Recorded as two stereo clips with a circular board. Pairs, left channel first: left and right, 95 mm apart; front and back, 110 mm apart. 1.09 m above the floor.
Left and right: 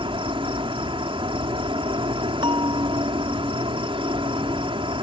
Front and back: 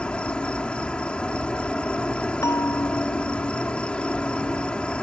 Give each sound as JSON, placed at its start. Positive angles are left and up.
{"t": 0.0, "sound": "an insect", "azimuth_deg": -80}
{"t": 2.4, "sound": "a bell", "azimuth_deg": -60}